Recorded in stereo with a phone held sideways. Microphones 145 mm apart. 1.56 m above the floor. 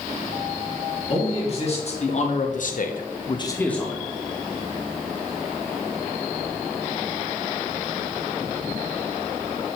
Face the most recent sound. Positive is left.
turn(degrees=0)  # may be behind; listen again after turning